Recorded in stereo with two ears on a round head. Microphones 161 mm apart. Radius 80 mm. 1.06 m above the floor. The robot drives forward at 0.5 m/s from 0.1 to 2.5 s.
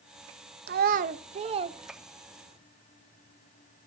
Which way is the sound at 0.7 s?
60° right (ahead or behind).